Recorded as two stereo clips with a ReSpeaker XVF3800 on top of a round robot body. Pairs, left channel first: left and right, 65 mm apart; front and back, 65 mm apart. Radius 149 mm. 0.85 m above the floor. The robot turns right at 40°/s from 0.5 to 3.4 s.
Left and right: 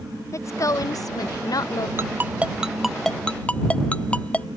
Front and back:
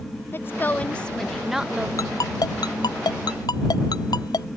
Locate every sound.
0.3 s a woman speaking: 55° left; by 1.9 s 110° left
2.0 s a ringtone: 35° right; by 4.5 s 20° left